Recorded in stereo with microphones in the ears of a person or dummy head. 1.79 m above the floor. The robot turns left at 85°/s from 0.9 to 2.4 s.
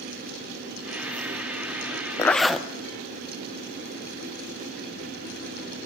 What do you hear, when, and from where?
2.2 s a zipper: 15° left (ahead or behind), 0.6 m; by 2.7 s centre (ahead or behind), 0.6 m